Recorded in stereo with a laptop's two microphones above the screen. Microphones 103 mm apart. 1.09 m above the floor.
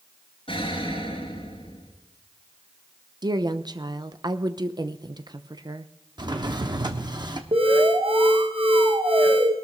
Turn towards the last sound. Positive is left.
turn(degrees=-60)  # may be behind; listen again after turning